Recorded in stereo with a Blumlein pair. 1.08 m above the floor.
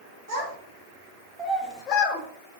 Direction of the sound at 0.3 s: 60° right.